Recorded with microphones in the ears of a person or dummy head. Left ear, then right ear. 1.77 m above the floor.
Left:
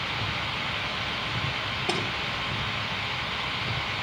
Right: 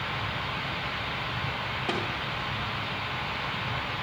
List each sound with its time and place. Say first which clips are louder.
1.9 s a thud: left 2 dB; 10° right (ahead or behind), 1.5 m